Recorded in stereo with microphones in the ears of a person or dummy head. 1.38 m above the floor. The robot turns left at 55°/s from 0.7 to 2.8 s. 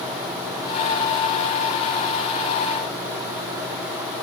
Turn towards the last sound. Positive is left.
No sound to turn to.